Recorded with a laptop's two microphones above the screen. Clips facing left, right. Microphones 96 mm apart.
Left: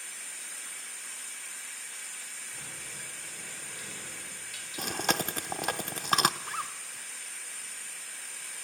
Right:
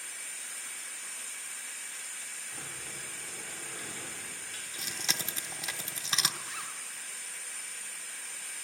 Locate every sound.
2.5 s a sliding door: 40° right (ahead or behind), 3 m
4.8 s chewing: 55° left (ahead or behind), 0.7 m
6.4 s a zipper: 45° left (ahead or behind), 2 m